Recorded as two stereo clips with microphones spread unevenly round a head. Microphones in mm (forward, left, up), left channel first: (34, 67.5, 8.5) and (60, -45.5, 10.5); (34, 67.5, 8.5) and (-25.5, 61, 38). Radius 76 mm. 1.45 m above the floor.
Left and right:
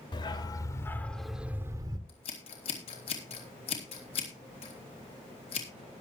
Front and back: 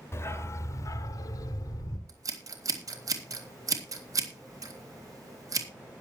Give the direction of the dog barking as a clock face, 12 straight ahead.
10 o'clock.